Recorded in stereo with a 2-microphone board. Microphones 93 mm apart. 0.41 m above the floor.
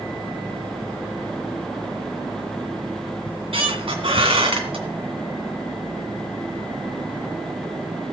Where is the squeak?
80° right, 1.8 m.